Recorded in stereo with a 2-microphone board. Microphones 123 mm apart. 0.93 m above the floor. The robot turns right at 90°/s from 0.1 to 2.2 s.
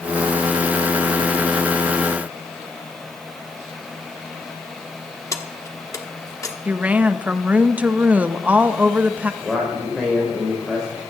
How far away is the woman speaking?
About 0.7 m.